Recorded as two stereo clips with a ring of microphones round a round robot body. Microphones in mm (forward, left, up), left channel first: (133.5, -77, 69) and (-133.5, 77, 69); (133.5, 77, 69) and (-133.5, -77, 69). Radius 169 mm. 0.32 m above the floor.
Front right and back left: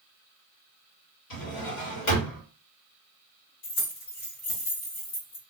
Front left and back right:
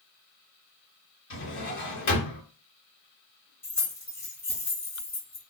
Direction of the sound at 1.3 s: 20° right.